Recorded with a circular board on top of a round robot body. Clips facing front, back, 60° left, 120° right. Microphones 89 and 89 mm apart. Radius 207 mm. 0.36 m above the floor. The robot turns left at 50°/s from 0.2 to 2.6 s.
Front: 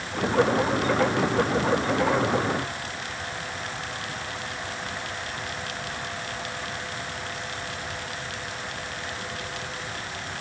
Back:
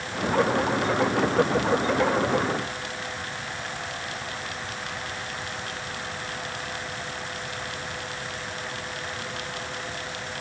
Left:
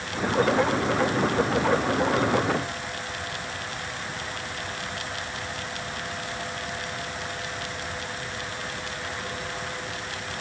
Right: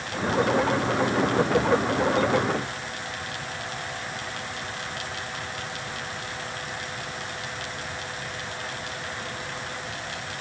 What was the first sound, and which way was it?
Only background noise.